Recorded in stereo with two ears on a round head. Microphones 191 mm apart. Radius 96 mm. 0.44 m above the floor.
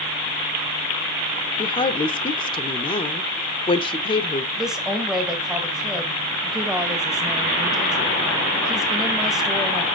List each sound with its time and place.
1.6 s a woman speaking: 25° left (ahead or behind), 1.0 m
4.6 s a woman speaking: centre (ahead or behind), 2.5 m